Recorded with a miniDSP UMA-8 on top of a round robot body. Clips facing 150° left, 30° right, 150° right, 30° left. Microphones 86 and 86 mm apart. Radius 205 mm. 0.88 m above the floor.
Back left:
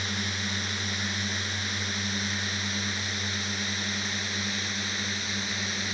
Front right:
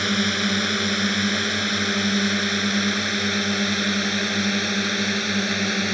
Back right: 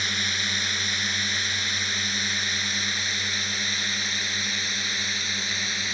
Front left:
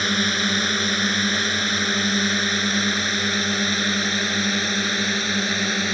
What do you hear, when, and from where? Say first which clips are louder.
0.0 s a drone: front right 10 dB, front left 8 dB; 10° right; by 5.9 s 5° right